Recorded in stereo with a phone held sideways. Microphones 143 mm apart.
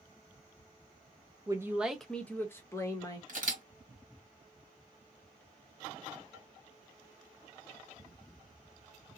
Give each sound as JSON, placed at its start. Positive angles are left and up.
{"t": 1.5, "sound": "a man speaking", "side_deg": -25, "distance_m": 0.5}
{"t": 3.3, "sound": "a camera shutter", "side_deg": -60, "distance_m": 1.5}